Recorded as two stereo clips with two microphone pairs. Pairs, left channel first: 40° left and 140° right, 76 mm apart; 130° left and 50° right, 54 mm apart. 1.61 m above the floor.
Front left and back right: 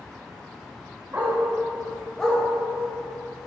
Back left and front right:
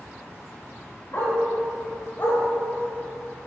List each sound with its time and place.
1.1 s a dog barking: 165° left, 2.5 m; by 2.4 s 110° left, 1.7 m